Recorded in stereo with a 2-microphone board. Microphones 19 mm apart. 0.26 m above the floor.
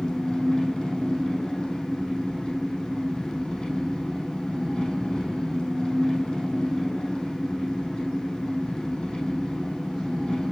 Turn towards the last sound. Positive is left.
turn(degrees=50)  # may be behind; listen again after turning